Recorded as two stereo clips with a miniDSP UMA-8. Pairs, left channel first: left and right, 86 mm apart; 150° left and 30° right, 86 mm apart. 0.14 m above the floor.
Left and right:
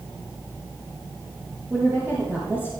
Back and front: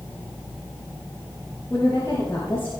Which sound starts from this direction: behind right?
A woman speaking, at 1.7 s.